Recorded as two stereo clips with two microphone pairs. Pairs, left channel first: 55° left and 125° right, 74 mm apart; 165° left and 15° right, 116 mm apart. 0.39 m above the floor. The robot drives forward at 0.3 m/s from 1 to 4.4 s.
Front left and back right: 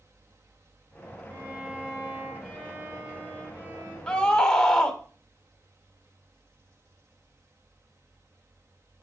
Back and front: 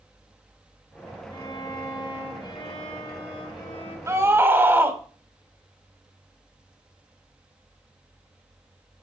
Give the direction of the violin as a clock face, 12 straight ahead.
7 o'clock.